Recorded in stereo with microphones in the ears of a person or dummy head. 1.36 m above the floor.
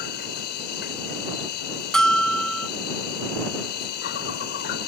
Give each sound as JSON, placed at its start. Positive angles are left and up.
{"t": 0.0, "sound": "an insect", "side_deg": 55}
{"t": 1.9, "sound": "a bell", "side_deg": 5}